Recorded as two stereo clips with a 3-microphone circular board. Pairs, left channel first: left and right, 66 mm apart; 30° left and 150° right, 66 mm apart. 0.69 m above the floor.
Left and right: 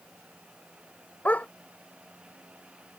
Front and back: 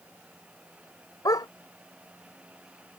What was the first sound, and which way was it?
A dog barking, 25° left.